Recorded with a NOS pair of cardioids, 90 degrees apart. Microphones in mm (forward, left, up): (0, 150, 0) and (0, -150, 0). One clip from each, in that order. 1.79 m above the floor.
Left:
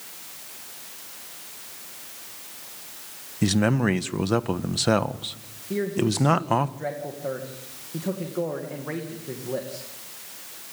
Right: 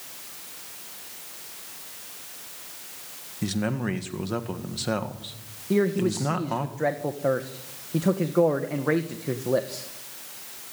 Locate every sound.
3.4 s a man speaking: 40° left, 1.5 m
5.7 s a man speaking: 45° right, 2 m